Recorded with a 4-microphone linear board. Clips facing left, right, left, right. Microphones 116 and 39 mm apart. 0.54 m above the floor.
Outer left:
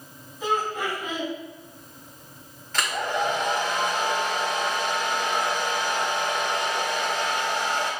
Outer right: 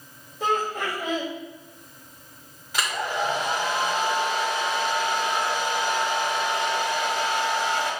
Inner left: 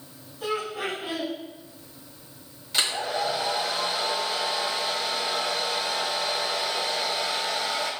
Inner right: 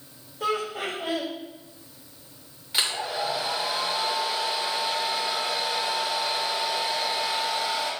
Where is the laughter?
65° right (ahead or behind), 3.5 m.